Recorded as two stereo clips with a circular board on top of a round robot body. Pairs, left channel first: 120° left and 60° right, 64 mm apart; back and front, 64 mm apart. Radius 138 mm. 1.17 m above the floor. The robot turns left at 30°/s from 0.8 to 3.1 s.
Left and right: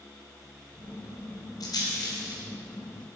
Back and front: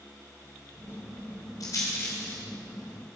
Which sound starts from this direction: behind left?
A rattle, at 1.6 s.